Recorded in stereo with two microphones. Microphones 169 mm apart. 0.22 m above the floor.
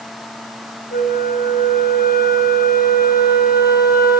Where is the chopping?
No chopping in this recording.